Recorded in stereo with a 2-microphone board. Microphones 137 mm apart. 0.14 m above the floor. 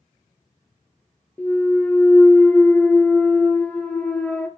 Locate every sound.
1.4 s a clunk: 10° left (ahead or behind), 0.6 m